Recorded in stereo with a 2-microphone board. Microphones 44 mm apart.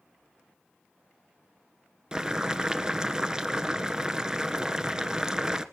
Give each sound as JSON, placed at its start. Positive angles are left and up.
{"t": 2.1, "sound": "boiling", "side_deg": -15, "distance_m": 0.9}